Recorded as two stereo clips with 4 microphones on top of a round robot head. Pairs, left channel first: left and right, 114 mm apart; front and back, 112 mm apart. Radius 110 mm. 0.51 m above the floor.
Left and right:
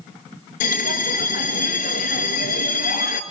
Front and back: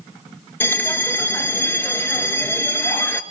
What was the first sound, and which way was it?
A bell, 70° left.